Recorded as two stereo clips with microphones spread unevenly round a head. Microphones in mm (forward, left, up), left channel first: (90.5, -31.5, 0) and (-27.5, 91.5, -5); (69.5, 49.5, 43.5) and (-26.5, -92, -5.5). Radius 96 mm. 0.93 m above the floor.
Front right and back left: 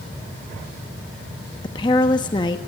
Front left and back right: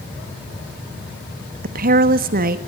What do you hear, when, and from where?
1.6 s a woman speaking: 115° right, 1.2 m